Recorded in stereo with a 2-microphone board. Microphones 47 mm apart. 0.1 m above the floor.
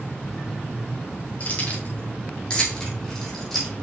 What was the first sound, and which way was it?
Keys jangling, 30° left (ahead or behind).